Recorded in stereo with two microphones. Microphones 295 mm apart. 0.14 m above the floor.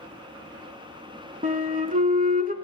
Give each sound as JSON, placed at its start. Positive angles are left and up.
{"t": 1.4, "sound": "a flute", "side_deg": -25, "distance_m": 0.6}